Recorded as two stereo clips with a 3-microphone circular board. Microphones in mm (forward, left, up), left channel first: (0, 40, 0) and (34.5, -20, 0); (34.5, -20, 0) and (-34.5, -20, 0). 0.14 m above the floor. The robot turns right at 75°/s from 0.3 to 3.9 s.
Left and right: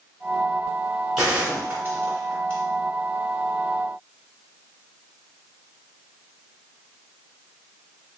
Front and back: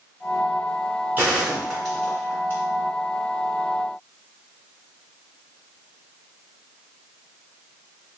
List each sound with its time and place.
1.2 s a gunshot: 135° right, 1.9 m; by 2.6 s 25° right, 1.9 m